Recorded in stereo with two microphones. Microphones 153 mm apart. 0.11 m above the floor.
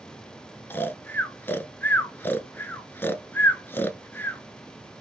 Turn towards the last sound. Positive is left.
turn(degrees=15)  # may be behind; listen again after turning